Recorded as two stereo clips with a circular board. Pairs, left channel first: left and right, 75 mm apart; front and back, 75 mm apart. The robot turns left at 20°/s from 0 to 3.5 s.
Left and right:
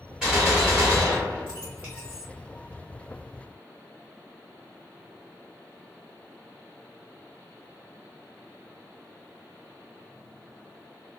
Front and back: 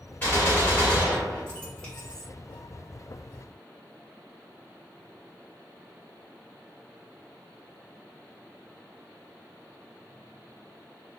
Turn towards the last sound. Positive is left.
turn(degrees=-90)